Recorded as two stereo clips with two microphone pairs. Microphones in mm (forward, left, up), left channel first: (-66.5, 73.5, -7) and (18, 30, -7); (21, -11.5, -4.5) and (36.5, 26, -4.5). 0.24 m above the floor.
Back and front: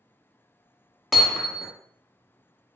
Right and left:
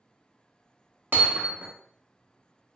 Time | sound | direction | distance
1.1 | hammering | 70° left | 0.7 m